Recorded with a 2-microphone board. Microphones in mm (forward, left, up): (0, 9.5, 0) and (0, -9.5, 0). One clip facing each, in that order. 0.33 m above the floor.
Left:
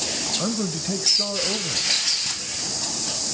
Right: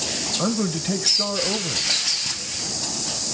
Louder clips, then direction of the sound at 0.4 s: Right 2 dB; 20° right (ahead or behind).